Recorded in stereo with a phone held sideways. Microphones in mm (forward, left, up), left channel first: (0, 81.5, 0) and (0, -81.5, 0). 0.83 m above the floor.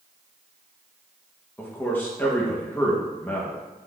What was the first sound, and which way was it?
A man speaking, 10° left (ahead or behind).